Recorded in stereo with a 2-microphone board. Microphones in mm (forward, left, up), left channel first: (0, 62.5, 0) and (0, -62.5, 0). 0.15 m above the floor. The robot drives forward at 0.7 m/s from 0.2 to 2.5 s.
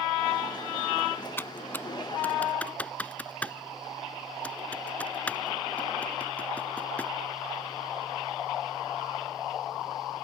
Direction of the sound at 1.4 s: 20° left (ahead or behind).